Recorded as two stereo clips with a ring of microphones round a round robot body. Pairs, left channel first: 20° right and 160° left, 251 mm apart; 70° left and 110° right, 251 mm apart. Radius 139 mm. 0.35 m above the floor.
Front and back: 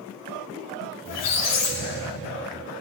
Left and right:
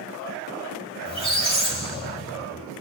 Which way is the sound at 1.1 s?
Straight ahead.